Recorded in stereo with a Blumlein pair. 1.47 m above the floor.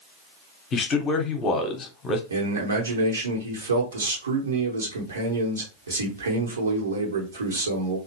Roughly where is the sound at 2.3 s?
Right.